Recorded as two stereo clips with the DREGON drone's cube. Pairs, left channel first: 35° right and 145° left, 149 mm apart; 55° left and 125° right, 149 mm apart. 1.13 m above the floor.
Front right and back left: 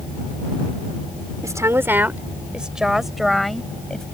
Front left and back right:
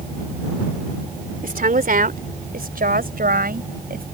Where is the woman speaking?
145° right; by 4.0 s 120° right.